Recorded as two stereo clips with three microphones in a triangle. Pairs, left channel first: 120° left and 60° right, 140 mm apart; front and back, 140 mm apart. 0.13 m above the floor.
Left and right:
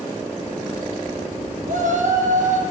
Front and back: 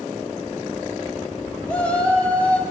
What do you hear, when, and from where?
1.7 s a shout: 80° right, 4.5 m